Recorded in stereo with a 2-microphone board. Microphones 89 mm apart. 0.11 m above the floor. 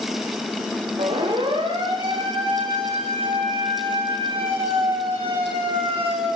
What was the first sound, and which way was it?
A siren, 85° right.